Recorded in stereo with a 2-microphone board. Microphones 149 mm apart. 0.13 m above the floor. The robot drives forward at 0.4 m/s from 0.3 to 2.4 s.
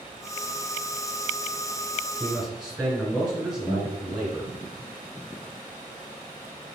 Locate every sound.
2.2 s a man speaking: 5° right (ahead or behind), 1.4 m
3.7 s a guitar: 5° right (ahead or behind), 1.3 m